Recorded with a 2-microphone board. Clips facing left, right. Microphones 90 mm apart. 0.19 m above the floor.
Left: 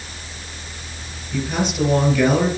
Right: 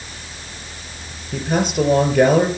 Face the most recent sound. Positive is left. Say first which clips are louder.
# right 3 dB
turn(degrees=-55)  # may be behind; listen again after turning